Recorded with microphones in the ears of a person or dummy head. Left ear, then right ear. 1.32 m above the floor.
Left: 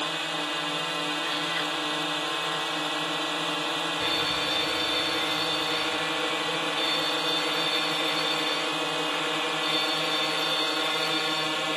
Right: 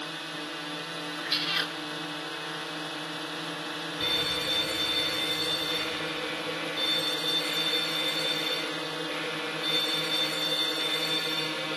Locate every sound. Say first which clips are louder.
0.0 s a drone: left 7 dB; 30° left (ahead or behind)
1.2 s a cat meowing: left 1 dB; 35° right (ahead or behind)
4.0 s a fire alarm: right 2 dB; 10° right (ahead or behind)